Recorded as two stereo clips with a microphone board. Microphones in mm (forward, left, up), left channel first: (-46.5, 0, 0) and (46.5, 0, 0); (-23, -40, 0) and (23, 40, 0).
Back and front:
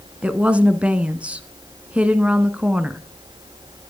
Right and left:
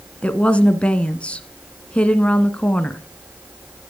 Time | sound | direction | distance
0.2 | a woman speaking | 60° right | 1.1 m